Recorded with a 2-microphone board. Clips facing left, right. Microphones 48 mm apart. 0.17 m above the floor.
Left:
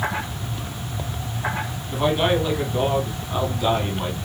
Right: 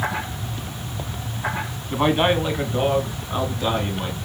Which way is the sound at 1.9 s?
25° right (ahead or behind).